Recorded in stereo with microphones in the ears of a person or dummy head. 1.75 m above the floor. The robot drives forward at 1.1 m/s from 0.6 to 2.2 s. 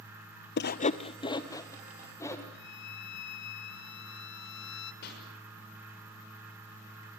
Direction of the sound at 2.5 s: 65° left (ahead or behind).